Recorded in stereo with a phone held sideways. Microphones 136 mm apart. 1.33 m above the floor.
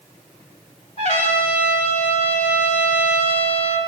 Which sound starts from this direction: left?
A trumpet, at 1.0 s.